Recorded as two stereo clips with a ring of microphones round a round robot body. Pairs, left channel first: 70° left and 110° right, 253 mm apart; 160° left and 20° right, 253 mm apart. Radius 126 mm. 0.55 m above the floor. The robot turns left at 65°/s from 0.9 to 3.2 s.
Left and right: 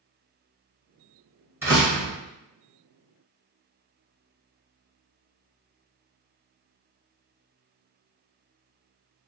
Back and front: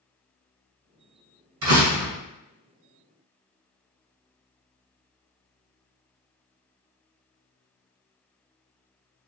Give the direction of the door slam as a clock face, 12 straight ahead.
1 o'clock.